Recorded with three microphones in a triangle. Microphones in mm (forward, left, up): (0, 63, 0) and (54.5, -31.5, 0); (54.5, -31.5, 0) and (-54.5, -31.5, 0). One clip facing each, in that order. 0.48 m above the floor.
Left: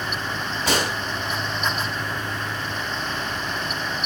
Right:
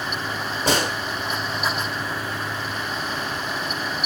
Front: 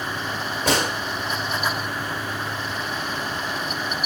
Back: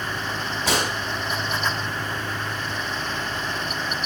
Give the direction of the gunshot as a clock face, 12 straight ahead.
1 o'clock.